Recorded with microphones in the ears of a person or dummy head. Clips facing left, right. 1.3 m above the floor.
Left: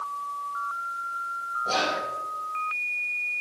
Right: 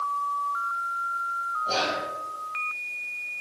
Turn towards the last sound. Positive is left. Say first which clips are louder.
# left 1 dB
turn(degrees=70)  # may be behind; listen again after turning